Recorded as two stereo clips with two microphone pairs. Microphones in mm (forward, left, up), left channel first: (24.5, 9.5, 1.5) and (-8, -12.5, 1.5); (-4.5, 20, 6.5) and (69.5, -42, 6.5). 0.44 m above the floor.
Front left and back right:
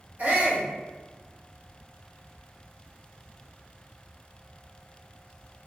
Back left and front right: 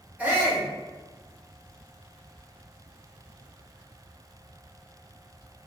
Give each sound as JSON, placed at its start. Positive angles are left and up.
{"t": 0.2, "sound": "a shout", "azimuth_deg": -110, "distance_m": 1.2}